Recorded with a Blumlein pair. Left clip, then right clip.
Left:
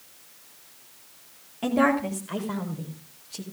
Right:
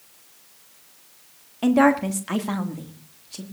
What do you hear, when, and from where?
1.6 s a woman speaking: 15° right, 2.5 m; by 3.4 s 80° right, 2.5 m